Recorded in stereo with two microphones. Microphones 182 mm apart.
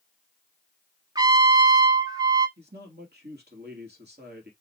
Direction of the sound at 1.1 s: 20° right (ahead or behind).